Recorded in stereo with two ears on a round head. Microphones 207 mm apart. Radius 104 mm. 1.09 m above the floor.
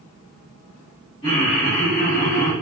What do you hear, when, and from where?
1.2 s laughter: 25° left (ahead or behind), 1.2 m; by 2.5 s 35° left (ahead or behind), 0.9 m